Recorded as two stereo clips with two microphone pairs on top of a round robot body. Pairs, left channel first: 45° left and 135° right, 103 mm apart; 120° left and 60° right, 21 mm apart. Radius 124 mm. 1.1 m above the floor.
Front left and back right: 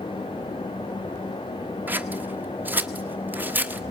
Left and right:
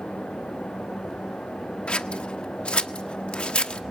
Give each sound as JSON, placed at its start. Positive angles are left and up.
{"t": 1.9, "sound": "scissors", "azimuth_deg": 155, "distance_m": 1.1}